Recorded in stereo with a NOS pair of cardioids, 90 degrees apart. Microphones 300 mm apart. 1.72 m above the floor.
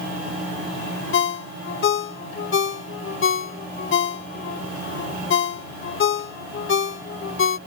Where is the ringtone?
45° left.